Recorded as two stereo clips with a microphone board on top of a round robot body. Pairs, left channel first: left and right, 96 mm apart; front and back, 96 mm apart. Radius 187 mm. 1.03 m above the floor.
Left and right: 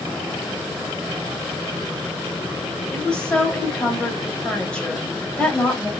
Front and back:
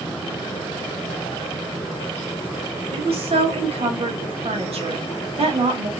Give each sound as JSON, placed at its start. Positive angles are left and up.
{"t": 2.9, "sound": "a woman speaking", "azimuth_deg": 170, "distance_m": 2.5}